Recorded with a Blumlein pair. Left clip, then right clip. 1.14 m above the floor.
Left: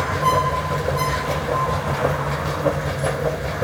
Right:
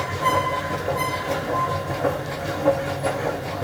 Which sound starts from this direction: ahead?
A machine running, at 0.0 s.